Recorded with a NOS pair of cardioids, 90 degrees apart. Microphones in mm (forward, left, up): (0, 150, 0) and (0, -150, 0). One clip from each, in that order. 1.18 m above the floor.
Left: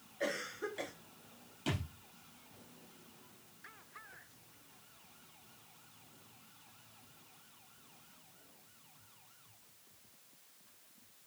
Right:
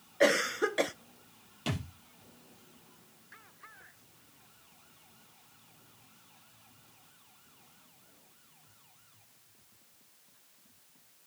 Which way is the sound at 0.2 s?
60° right.